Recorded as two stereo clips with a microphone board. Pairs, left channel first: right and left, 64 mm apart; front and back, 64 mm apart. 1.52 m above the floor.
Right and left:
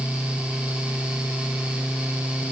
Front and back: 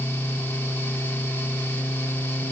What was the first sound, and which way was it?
Only background noise.